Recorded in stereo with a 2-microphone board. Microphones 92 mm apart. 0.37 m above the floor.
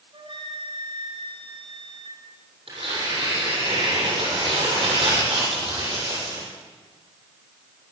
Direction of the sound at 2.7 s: 85° right.